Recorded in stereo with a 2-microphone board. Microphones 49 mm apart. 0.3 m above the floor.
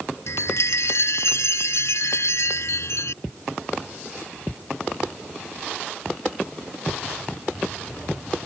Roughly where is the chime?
Left.